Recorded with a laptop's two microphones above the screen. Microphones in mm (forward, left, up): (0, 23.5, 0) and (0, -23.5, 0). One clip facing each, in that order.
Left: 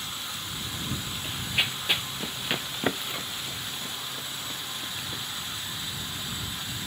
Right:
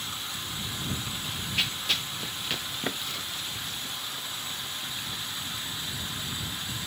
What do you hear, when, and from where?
1.2 s running footsteps: 20° left (ahead or behind); by 5.2 s 25° left (ahead or behind)